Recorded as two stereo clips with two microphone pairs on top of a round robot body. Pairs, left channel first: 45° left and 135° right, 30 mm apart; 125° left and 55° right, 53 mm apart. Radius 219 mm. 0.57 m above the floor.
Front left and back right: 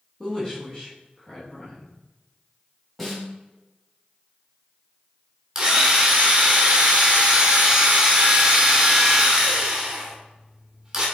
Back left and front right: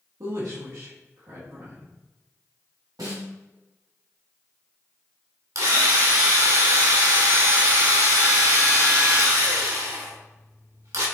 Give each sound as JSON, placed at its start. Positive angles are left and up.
{"t": 0.2, "sound": "a woman speaking", "azimuth_deg": -35, "distance_m": 2.5}
{"t": 3.0, "sound": "a snare drum", "azimuth_deg": -45, "distance_m": 2.0}
{"t": 5.5, "sound": "a drill", "azimuth_deg": -65, "distance_m": 2.5}